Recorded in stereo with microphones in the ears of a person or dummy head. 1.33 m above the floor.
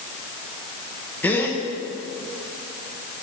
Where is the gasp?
10° left (ahead or behind), 1.0 m.